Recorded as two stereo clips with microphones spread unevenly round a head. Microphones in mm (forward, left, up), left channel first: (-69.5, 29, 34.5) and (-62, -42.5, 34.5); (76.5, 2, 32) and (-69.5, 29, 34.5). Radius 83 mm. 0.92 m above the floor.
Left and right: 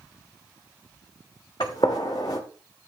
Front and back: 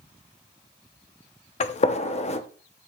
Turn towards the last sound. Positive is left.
turn(degrees=40)